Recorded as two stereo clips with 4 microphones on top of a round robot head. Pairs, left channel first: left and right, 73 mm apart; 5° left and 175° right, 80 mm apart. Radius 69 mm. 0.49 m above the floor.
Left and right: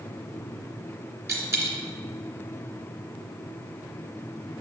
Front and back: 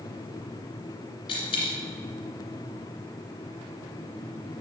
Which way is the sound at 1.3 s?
35° right.